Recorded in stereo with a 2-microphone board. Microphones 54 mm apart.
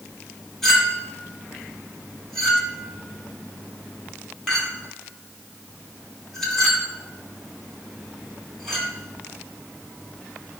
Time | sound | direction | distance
0.6 | a clink | 5° left (ahead or behind) | 2.5 m